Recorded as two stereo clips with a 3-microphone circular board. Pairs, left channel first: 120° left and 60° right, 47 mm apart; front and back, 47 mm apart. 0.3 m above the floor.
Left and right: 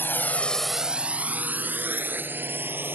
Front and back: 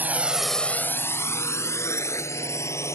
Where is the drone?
140° left; by 2.9 s 15° right.